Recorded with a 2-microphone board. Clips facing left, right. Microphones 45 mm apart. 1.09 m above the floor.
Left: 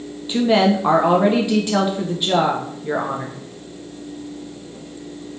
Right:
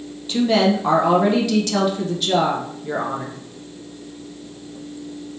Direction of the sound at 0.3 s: 20° left (ahead or behind).